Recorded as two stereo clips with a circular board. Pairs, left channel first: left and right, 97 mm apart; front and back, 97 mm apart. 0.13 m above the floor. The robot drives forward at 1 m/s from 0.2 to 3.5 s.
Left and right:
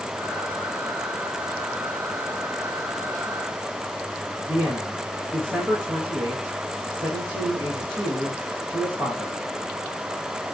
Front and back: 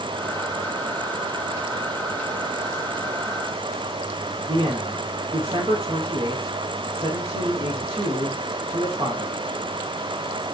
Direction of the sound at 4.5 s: 165° right.